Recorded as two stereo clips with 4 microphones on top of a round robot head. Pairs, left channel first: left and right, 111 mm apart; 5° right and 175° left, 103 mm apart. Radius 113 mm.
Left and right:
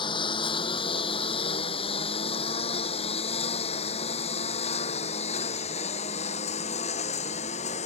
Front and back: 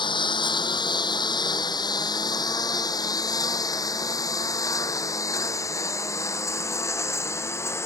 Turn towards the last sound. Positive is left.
turn(degrees=60)